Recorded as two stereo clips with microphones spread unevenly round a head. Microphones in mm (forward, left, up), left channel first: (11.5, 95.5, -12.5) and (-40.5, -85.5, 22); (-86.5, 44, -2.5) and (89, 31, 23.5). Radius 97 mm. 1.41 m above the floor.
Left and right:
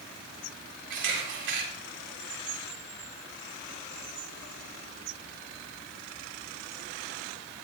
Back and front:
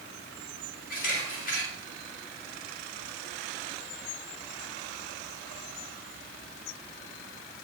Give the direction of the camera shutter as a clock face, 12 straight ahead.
4 o'clock.